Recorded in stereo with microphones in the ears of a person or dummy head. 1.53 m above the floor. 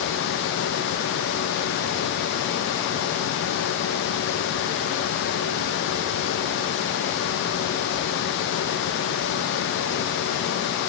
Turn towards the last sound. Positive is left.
No sound to turn to.